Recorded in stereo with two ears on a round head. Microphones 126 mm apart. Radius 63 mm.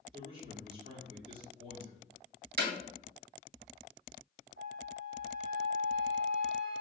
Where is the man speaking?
40° right (ahead or behind), 1.2 m.